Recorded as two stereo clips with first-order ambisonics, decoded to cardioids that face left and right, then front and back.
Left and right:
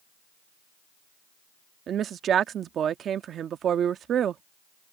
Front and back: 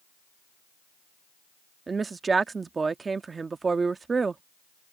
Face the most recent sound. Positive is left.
turn(degrees=-120)